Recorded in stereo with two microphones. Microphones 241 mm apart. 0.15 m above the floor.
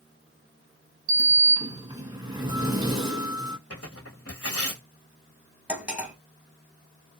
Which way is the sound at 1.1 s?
20° right (ahead or behind).